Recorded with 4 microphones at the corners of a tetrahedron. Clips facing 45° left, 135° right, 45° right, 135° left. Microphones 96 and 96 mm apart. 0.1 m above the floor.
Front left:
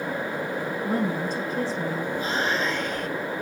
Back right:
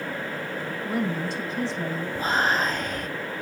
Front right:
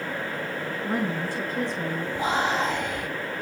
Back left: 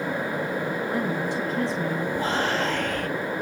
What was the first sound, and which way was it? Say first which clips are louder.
A woman speaking: front left 1 dB, back left 1 dB; straight ahead.